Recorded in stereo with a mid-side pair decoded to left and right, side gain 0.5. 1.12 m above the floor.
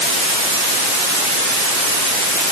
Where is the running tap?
No running tap in this recording.